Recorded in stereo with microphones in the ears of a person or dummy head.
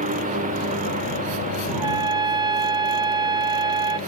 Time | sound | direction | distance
0.0 | a lawn mower | 35° right (ahead or behind) | ?
1.7 | a trumpet | 20° right (ahead or behind) | ?